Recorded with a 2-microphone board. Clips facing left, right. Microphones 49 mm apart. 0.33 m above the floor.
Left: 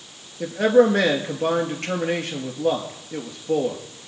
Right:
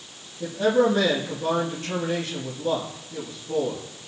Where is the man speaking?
70° left (ahead or behind), 5 m.